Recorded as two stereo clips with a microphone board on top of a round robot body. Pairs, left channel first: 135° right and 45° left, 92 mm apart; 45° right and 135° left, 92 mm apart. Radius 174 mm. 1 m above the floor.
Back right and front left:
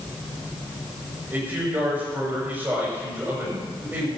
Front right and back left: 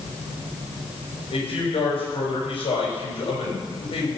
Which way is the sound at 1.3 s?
25° right.